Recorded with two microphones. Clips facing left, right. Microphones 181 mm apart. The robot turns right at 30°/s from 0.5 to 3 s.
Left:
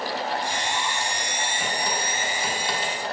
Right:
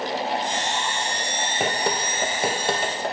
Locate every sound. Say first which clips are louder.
1.6 s dripping: right 6 dB; 75° right (ahead or behind), 0.5 m; by 3.1 s 55° right (ahead or behind), 0.5 m